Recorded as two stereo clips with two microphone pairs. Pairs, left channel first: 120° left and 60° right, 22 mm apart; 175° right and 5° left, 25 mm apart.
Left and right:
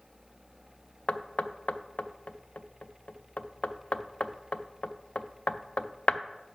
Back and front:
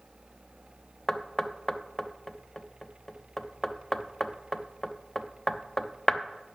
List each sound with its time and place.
1.1 s knocking: 115° left, 0.5 m